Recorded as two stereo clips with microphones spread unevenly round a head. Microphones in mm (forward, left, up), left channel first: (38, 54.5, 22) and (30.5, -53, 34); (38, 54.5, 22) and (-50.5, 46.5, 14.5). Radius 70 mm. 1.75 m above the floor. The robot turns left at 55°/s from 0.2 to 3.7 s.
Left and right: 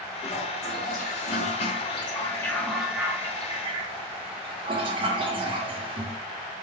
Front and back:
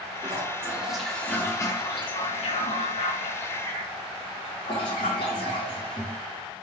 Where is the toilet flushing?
140° left, 1.9 m; by 6.2 s 55° right, 1.9 m.